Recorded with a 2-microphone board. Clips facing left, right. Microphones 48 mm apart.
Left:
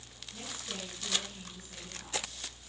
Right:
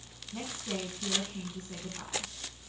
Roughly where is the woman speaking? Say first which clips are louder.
Right 6 dB; right.